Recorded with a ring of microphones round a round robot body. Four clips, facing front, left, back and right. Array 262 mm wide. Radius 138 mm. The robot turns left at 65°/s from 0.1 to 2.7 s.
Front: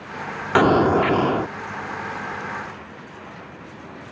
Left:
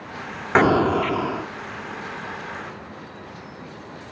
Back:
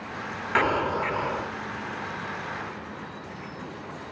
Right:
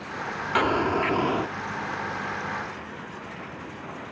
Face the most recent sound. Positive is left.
turn(degrees=-95)